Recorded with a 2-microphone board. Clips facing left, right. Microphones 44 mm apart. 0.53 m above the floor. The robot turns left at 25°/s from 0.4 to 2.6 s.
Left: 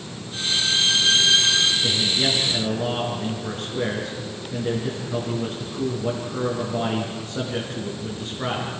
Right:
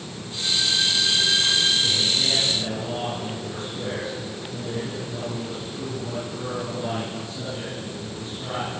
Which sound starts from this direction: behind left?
A violin, at 0.3 s.